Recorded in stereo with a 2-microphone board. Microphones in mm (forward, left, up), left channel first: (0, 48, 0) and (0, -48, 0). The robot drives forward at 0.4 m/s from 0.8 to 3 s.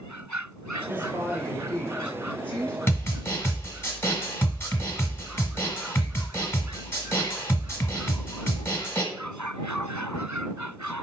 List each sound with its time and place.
0.9 s a woman speaking: 20° left (ahead or behind), 1.3 m; by 2.8 s 15° left (ahead or behind), 1.9 m
2.9 s a snare drum: 25° left (ahead or behind), 1.1 m